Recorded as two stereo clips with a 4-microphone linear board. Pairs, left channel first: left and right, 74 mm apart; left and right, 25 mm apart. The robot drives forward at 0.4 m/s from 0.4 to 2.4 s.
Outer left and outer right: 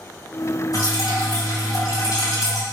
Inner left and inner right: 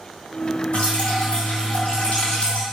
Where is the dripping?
60° left (ahead or behind), 3 m; by 2.6 s 50° left (ahead or behind), 3.5 m.